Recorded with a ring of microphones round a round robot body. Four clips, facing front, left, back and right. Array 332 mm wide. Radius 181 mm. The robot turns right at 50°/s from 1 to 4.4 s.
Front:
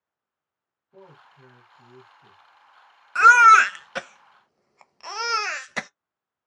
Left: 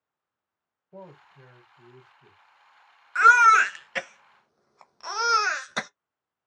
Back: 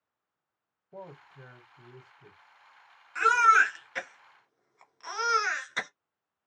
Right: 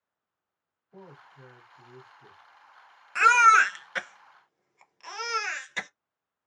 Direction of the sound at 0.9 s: 150° left.